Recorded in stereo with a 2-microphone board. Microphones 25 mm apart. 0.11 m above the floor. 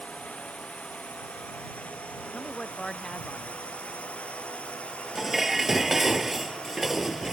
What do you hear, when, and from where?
0.0 s a drone: 80° left; by 7.3 s 50° left (ahead or behind)
2.3 s a man speaking: 30° left (ahead or behind)
5.2 s dishes clattering: 10° right (ahead or behind)